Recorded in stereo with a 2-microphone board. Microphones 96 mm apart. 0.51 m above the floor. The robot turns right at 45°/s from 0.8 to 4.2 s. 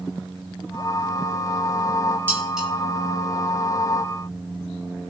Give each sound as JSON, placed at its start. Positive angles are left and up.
{"t": 2.3, "sound": "dishes clattering", "side_deg": -20, "distance_m": 3.5}